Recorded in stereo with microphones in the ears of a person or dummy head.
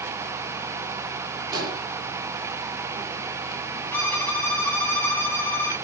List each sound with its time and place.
1.5 s an explosion: 20° right (ahead or behind), 4 m
3.9 s a violin: 10° left (ahead or behind), 2.5 m